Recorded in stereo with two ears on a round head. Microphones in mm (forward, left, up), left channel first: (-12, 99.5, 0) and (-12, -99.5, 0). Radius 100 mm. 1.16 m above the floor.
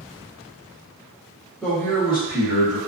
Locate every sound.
1.6 s a man speaking: centre (ahead or behind), 0.9 m; by 2.8 s 40° left (ahead or behind), 1.1 m